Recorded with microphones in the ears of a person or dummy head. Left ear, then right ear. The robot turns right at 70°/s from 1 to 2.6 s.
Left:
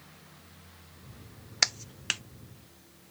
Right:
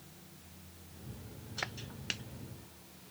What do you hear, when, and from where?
1.6 s a clap: 80° left; by 2.2 s 40° left (ahead or behind)